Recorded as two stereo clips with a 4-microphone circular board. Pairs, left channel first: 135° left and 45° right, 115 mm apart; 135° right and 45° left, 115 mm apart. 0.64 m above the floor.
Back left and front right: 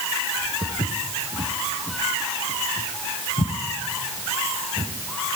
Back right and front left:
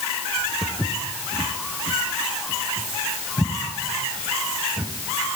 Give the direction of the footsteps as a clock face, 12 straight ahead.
7 o'clock.